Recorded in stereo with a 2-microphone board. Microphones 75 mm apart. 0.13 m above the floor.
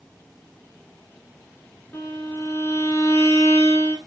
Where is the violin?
30° left (ahead or behind), 0.9 m.